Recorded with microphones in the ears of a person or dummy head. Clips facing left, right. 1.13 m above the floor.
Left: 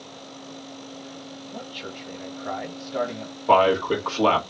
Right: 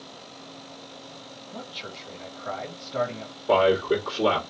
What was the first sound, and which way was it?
A man speaking, 30° left (ahead or behind).